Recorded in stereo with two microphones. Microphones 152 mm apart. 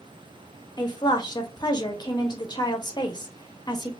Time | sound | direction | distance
0.8 | a woman speaking | 30° left (ahead or behind) | 0.8 m